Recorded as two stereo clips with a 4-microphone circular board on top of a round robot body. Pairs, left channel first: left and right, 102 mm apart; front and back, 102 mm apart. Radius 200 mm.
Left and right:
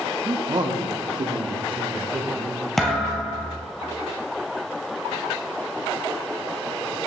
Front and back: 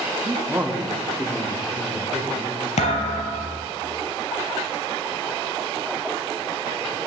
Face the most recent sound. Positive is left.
turn(degrees=5)